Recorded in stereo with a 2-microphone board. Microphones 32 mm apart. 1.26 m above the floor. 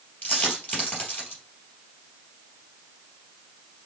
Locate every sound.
0.2 s a dropped coin: 50° left (ahead or behind), 3 m